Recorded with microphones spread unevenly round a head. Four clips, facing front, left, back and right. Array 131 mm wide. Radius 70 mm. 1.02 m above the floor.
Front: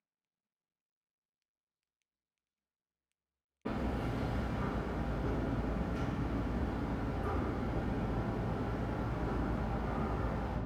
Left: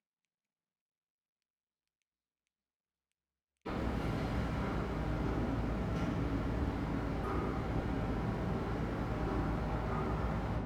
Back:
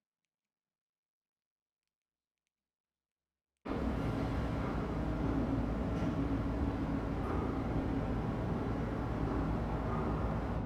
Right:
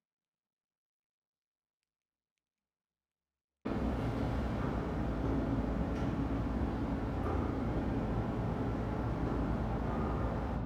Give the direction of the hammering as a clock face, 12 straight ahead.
1 o'clock.